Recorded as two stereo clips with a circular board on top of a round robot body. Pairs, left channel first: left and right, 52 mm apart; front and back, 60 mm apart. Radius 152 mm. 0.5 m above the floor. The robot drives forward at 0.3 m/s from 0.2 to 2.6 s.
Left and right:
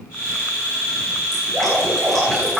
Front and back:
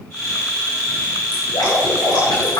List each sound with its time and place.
1.3 s dripping: 5° left, 10 m